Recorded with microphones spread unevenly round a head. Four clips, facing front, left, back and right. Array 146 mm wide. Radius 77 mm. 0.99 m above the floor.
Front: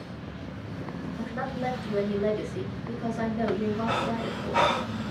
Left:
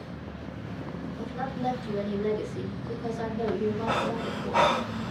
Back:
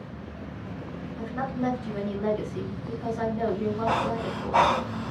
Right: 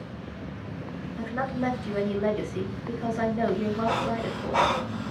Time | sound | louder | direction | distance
1.2 | a woman speaking | right 5 dB, back 3 dB | 70° right | 2.5 m
3.9 | breathing | right 1 dB, back 2 dB | 175° right | 1.2 m